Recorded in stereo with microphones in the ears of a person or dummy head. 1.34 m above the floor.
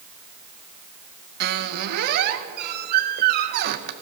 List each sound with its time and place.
1.4 s a squeak: 60° right (ahead or behind), 0.7 m